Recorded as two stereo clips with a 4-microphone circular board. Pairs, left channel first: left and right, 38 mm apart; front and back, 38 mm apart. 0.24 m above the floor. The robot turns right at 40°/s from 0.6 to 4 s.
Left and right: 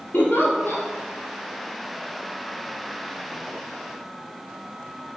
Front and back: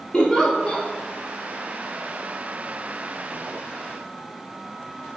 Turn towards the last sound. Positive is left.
turn(degrees=-150)